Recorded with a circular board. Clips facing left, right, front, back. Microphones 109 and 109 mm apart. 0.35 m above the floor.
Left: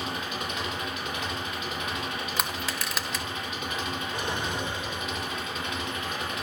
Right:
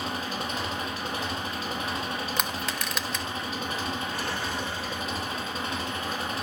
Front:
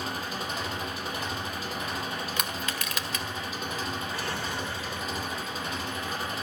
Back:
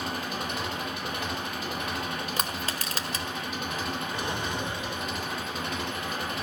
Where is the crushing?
175° left, 1.6 m.